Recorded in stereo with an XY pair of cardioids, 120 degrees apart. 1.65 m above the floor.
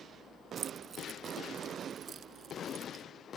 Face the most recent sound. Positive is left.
turn(degrees=-45)